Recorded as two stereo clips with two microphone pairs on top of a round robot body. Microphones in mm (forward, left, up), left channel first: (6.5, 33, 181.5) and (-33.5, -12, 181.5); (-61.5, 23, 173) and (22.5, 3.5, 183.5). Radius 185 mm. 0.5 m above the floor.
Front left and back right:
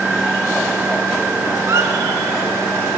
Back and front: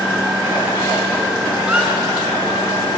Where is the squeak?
90° right, 2.5 m.